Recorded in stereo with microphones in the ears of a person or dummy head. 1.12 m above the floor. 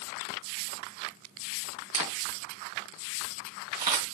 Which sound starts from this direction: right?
A camera shutter, at 1.9 s.